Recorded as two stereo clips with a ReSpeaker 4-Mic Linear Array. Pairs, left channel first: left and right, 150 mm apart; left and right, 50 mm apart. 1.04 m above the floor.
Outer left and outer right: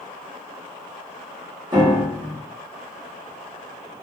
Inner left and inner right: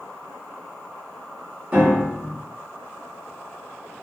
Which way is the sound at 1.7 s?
30° right (ahead or behind).